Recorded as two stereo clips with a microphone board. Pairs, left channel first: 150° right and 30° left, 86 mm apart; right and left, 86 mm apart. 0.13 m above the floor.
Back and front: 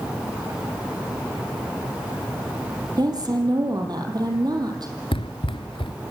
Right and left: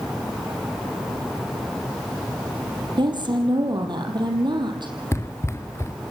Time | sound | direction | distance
3.0 | a woman speaking | 65° left | 4 m
5.1 | running footsteps | 150° right | 1.0 m